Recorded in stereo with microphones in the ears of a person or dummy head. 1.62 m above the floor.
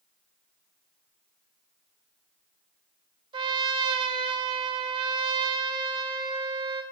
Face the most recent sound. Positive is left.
turn(degrees=-25)  # may be behind; listen again after turning